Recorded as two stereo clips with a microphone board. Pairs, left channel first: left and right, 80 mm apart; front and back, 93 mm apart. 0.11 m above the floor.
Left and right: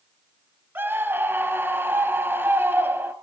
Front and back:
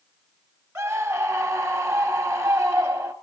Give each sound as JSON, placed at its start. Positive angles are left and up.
{"t": 0.8, "sound": "a scream", "azimuth_deg": -130, "distance_m": 1.2}